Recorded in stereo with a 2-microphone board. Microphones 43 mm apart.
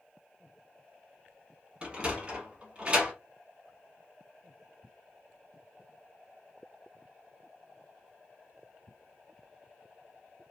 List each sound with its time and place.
1.8 s a sliding door: 25° right (ahead or behind), 0.9 m